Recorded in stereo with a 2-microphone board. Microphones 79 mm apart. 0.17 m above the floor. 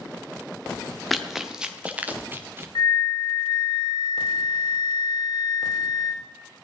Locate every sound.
1.1 s running footsteps: centre (ahead or behind), 1.6 m; by 2.6 s 30° right (ahead or behind), 2 m
2.8 s a flute: 65° left (ahead or behind), 1.1 m